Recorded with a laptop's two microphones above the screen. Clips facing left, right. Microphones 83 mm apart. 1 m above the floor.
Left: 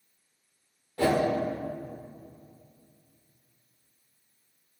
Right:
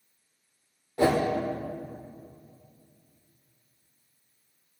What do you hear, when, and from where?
1.0 s a whoosh: 20° right (ahead or behind), 0.7 m